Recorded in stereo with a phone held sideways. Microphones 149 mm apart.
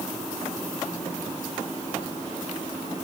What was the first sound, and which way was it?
Only background noise.